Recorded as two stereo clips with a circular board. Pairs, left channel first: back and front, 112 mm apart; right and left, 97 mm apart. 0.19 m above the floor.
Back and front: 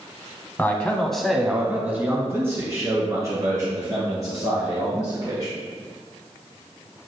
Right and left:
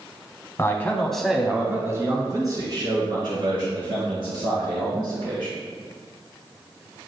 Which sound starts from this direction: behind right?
A man speaking, at 0.6 s.